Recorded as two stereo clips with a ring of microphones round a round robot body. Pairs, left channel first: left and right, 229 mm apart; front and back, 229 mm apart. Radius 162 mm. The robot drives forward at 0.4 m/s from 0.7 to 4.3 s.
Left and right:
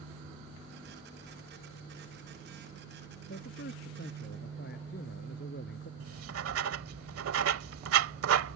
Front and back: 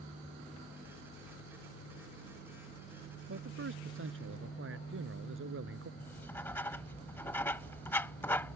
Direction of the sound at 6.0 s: 80° right.